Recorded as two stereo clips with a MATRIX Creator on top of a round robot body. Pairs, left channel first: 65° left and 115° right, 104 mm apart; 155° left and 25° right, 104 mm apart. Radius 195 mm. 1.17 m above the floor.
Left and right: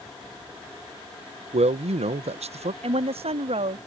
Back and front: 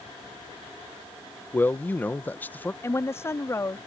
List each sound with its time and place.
1.5 s a man speaking: 130° right
2.8 s a woman speaking: 135° right